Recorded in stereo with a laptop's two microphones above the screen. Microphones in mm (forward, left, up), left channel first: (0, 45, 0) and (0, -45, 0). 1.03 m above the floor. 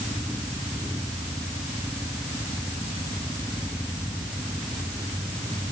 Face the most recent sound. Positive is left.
No sound to turn to.